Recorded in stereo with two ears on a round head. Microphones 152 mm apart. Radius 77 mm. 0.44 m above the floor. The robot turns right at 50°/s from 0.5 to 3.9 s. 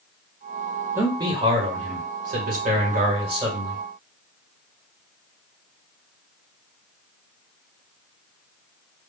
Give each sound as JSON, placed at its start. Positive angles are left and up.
{"t": 0.9, "sound": "a man speaking", "azimuth_deg": -160, "distance_m": 1.8}